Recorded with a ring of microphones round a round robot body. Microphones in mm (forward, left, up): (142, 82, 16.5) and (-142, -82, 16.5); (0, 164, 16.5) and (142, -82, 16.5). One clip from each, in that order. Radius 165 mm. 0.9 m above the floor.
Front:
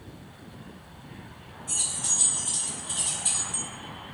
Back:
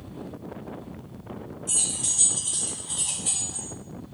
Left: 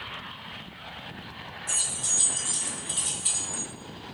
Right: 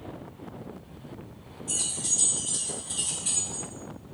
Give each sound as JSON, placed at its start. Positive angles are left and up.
{"t": 1.7, "sound": "keys jangling", "azimuth_deg": 155, "distance_m": 1.4}